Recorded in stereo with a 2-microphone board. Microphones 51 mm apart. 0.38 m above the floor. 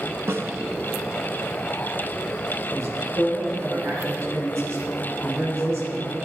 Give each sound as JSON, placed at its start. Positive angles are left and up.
{"t": 0.3, "sound": "a snare drum", "side_deg": -55, "distance_m": 0.9}
{"t": 2.7, "sound": "a man speaking", "side_deg": -65, "distance_m": 3.5}